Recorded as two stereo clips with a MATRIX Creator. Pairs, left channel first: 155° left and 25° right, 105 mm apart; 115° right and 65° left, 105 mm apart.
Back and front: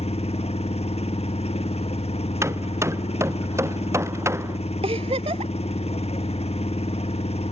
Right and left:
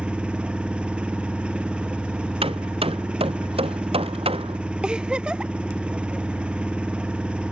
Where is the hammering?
40° left.